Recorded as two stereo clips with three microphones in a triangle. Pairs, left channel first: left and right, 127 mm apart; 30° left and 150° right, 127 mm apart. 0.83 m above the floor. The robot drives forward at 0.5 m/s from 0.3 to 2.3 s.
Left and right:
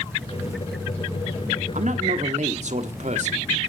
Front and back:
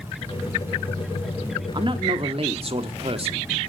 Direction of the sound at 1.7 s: 100° right.